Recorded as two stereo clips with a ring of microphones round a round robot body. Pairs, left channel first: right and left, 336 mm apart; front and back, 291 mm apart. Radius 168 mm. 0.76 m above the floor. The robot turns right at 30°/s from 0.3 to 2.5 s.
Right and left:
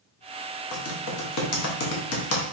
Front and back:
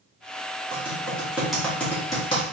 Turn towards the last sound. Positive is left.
turn(degrees=-65)